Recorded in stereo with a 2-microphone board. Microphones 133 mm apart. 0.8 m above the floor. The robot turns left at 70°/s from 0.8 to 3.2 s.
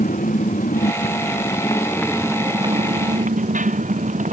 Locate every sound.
0.0 s a motorcycle: 85° left; by 4.3 s 70° right (ahead or behind)